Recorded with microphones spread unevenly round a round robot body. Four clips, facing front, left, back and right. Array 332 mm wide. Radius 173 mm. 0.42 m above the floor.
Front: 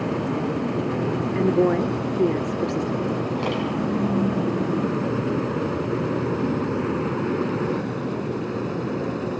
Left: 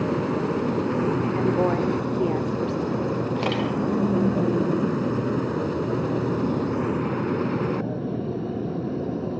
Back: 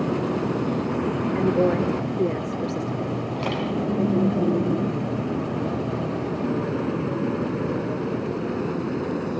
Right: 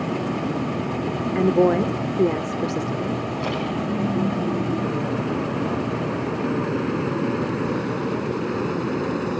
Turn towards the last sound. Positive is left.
turn(degrees=95)